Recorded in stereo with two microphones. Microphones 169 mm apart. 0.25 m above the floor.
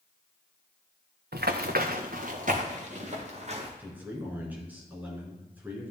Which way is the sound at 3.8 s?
10° right (ahead or behind).